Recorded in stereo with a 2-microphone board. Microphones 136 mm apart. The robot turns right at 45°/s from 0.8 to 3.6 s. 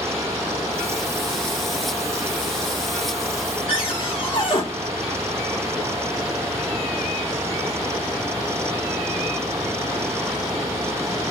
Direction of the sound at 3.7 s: 40° left (ahead or behind).